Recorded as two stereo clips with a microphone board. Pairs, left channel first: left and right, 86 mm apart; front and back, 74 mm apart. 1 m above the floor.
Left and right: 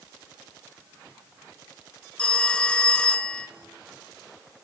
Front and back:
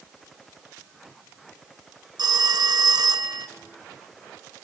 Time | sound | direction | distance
2.2 | a phone ringing | 165° left | 0.6 m